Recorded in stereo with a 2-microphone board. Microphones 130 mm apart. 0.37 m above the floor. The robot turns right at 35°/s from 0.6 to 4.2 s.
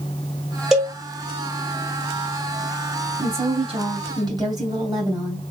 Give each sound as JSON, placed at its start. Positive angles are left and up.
{"t": 0.7, "sound": "a cowbell", "side_deg": -5, "distance_m": 1.3}
{"t": 3.2, "sound": "a woman speaking", "azimuth_deg": -75, "distance_m": 1.8}